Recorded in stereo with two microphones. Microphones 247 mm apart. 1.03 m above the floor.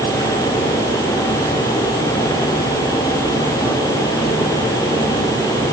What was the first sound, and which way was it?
Only background noise.